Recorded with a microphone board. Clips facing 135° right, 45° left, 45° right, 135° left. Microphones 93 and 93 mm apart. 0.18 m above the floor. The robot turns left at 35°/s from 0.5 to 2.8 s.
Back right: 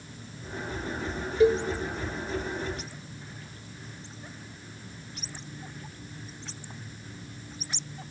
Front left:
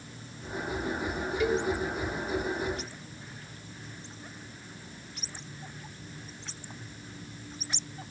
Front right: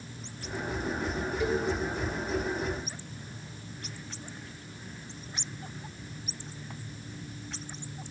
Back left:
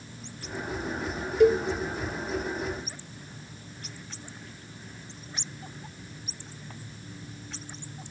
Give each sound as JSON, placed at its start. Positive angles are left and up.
{"t": 1.4, "sound": "a cowbell", "azimuth_deg": 165, "distance_m": 0.9}